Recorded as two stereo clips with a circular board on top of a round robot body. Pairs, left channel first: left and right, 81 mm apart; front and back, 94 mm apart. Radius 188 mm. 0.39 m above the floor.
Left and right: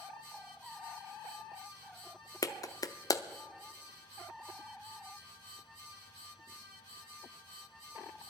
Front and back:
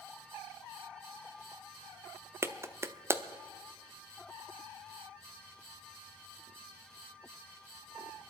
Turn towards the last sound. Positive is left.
turn(degrees=120)